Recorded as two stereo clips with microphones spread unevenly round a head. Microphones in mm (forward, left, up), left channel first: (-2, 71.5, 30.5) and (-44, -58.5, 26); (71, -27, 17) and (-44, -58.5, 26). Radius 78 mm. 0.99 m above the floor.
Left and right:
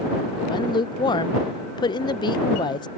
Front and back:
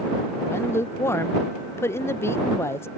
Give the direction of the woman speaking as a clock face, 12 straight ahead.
10 o'clock.